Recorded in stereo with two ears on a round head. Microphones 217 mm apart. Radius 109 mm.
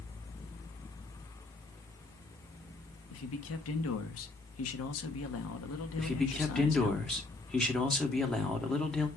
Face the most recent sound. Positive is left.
turn(degrees=0)  # may be behind; listen again after turning